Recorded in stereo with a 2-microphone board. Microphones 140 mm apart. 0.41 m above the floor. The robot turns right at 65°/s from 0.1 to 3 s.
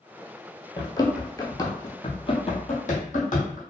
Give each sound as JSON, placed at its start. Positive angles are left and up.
{"t": 0.8, "sound": "running footsteps", "side_deg": 30, "distance_m": 0.6}